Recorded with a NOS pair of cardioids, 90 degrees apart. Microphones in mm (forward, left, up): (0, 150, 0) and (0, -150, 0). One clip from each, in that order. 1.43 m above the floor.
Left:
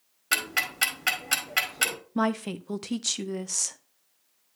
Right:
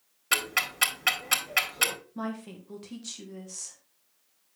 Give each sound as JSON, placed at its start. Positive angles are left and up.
{"t": 0.3, "sound": "ticking", "azimuth_deg": -5, "distance_m": 2.0}
{"t": 2.1, "sound": "a woman speaking", "azimuth_deg": 60, "distance_m": 0.8}